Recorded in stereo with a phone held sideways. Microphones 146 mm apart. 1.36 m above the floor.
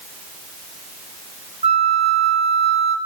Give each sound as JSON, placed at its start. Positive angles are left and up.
{"t": 1.6, "sound": "a flute", "side_deg": -45, "distance_m": 1.1}